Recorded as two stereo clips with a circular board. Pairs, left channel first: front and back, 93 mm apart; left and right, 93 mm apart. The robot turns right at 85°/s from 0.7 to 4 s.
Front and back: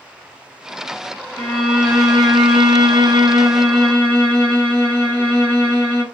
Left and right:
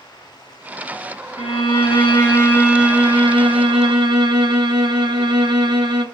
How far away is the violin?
About 1.7 m.